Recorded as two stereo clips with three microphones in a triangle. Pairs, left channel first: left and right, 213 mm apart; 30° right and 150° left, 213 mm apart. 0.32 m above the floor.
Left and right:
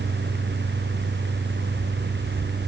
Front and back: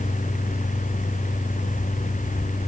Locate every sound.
Only background noise.